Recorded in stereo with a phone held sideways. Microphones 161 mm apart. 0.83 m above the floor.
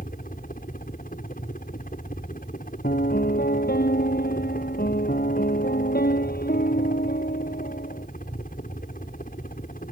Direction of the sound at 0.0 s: 60° left (ahead or behind).